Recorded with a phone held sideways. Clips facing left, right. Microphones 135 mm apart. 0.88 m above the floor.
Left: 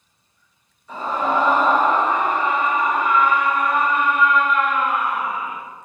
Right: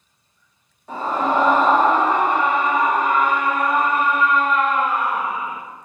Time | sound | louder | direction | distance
0.9 | a scream | right 1 dB | 75° right (ahead or behind) | 2.5 m